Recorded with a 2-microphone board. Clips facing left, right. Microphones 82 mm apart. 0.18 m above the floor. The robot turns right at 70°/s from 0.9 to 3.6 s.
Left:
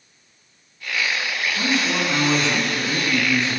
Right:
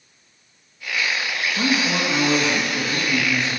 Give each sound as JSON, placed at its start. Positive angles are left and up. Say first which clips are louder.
{"t": 1.6, "sound": "a man speaking", "louder": "right 1 dB", "azimuth_deg": -25, "distance_m": 1.5}